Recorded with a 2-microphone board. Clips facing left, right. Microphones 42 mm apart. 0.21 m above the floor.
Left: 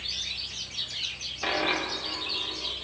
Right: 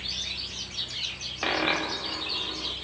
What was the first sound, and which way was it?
A dropped coin, 45° right (ahead or behind).